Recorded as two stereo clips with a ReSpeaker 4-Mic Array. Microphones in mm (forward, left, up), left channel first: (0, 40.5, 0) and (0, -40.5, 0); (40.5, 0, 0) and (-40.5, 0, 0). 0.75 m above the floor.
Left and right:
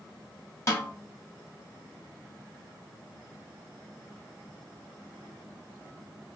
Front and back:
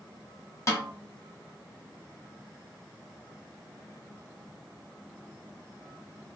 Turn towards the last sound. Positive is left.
turn(degrees=45)